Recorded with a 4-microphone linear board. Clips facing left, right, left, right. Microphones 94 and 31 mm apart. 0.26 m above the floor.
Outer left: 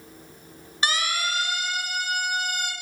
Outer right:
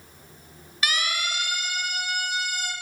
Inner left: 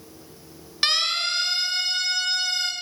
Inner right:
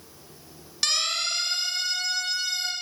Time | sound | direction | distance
0.8 | a siren | 30° left (ahead or behind) | 5.5 m